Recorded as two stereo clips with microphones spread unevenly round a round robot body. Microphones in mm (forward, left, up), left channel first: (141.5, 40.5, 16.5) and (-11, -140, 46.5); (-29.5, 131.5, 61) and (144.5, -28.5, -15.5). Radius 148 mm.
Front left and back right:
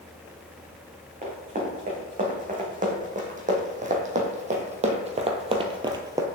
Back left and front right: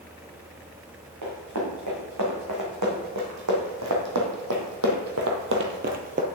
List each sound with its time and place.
1.2 s running footsteps: 80° right, 3 m; by 6.2 s 105° right, 0.9 m